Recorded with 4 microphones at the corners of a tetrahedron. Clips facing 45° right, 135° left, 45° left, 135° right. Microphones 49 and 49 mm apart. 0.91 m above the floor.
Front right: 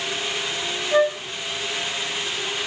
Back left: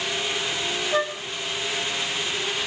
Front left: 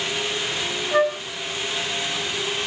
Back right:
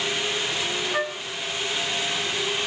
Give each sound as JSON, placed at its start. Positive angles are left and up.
{"t": 0.9, "sound": "a flute", "azimuth_deg": -10, "distance_m": 1.3}